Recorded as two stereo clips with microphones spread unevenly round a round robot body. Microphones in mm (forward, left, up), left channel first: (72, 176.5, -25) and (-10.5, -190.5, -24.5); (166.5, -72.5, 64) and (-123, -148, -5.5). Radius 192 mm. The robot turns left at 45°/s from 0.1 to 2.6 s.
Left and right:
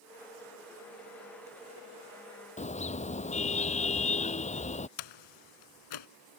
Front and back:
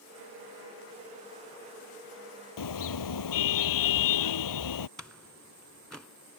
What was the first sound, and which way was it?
A car horn, 5° left.